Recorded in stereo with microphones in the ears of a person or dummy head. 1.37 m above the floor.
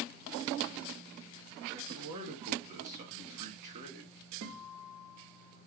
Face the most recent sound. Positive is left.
turn(degrees=-75)  # may be behind; listen again after turning